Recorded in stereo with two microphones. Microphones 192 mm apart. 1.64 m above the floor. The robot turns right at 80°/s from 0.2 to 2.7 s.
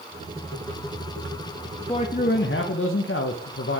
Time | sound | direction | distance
1.9 | a man speaking | 20° left | 0.6 m